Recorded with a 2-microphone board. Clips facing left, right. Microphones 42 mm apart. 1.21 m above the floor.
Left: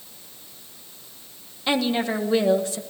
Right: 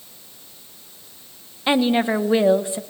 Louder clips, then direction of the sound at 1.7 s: Right 5 dB; 20° right (ahead or behind).